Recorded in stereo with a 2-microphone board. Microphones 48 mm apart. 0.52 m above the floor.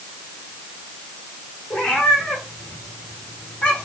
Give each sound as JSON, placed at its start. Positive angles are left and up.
{"t": 1.7, "sound": "a cat meowing", "side_deg": 20, "distance_m": 6.5}